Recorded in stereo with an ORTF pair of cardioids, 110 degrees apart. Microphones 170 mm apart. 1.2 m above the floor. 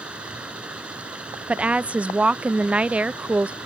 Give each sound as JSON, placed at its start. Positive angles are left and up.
{"t": 0.0, "sound": "running water", "azimuth_deg": -5}
{"t": 1.5, "sound": "a woman speaking", "azimuth_deg": -10}